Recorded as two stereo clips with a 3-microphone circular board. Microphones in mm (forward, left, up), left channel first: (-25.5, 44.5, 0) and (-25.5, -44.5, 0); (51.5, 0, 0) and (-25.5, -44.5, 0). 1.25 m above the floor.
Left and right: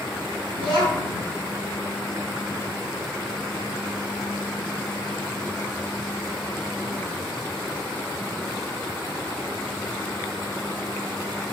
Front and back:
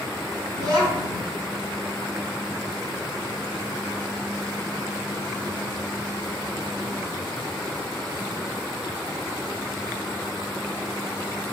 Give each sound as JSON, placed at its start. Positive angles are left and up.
{"t": 0.5, "sound": "a child speaking", "azimuth_deg": -100, "distance_m": 2.5}